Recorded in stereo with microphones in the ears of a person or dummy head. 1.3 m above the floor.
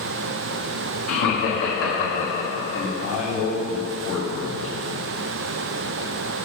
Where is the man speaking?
70° left (ahead or behind), 3 m.